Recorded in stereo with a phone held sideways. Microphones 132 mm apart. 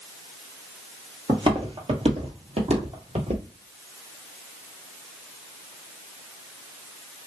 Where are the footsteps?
40° right (ahead or behind), 1.5 m; by 3.4 s 50° right (ahead or behind), 1.8 m.